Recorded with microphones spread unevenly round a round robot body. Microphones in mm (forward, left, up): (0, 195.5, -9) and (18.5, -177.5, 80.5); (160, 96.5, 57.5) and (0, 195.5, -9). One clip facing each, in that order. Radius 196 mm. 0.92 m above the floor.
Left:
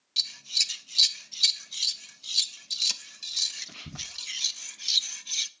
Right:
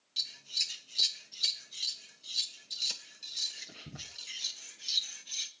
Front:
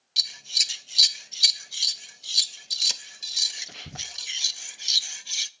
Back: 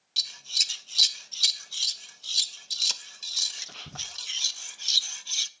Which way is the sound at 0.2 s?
55° left.